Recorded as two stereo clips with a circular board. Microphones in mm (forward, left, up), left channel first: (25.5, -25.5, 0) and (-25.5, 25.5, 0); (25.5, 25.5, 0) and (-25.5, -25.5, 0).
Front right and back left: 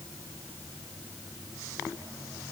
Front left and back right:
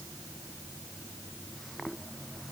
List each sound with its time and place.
Only background noise.